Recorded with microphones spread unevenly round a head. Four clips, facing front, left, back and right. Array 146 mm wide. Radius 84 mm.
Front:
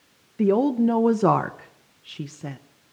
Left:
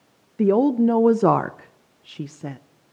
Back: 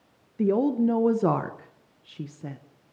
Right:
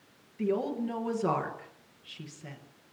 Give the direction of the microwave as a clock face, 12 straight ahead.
No microwave in this recording.